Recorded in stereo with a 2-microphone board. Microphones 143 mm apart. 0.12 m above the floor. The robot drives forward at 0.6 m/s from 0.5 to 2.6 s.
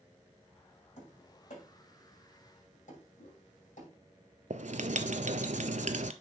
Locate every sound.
1.0 s tapping: 65° left (ahead or behind), 6.5 m; by 3.9 s 70° left (ahead or behind), 6.5 m
3.2 s a whoosh: 80° left, 2.5 m
4.5 s writing: 65° right (ahead or behind), 0.6 m